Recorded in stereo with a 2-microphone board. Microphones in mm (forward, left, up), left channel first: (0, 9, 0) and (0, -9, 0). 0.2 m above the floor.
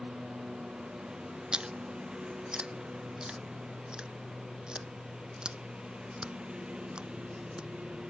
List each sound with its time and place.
0.0 s a lawn mower: 85° right
1.5 s chewing: 50° right (ahead or behind)